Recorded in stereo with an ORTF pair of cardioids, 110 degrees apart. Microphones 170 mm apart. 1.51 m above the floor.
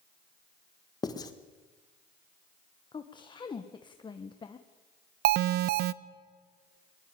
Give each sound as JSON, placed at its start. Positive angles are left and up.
{"t": 1.0, "sound": "writing", "azimuth_deg": 20, "distance_m": 1.8}
{"t": 2.9, "sound": "a woman speaking", "azimuth_deg": 25, "distance_m": 1.2}
{"t": 5.2, "sound": "an alarm", "azimuth_deg": -65, "distance_m": 0.6}